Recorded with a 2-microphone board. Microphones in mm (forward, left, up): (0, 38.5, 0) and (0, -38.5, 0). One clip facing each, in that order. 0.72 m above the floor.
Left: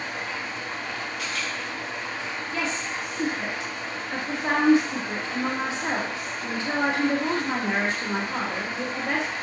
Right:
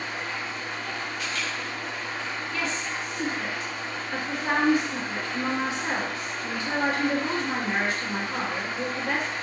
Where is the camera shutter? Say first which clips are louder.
Even; 65° left (ahead or behind), 1.3 m.